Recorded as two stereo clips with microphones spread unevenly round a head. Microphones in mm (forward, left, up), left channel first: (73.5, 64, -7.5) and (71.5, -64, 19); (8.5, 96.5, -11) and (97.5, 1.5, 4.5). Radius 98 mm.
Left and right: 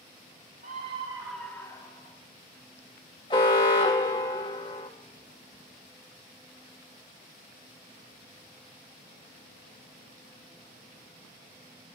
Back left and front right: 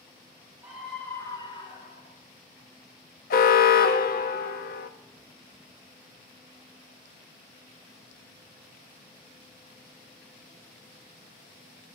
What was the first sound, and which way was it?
A scream, 130° right.